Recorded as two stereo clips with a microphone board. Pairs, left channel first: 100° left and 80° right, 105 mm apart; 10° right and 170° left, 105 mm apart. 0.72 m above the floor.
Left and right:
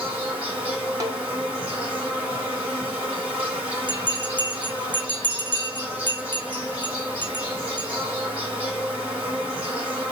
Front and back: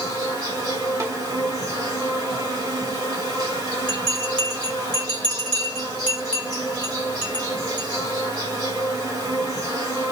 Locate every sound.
0.0 s an insect: 155° right, 1.7 m
1.0 s a snare drum: 130° right, 0.9 m
3.9 s a bell: 60° left, 1.1 m